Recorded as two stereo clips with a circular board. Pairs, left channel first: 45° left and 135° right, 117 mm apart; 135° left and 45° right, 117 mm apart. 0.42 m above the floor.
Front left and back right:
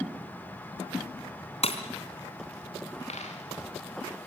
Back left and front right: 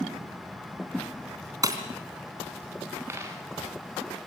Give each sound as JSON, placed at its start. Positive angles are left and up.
{"t": 1.6, "sound": "breaking glass", "azimuth_deg": 15, "distance_m": 3.0}
{"t": 3.1, "sound": "a dropped coin", "azimuth_deg": 25, "distance_m": 5.0}